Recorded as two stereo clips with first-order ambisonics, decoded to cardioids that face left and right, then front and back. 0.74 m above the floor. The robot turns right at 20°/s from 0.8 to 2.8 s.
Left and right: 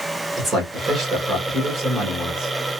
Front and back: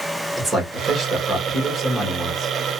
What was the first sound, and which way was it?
A man speaking, 105° right.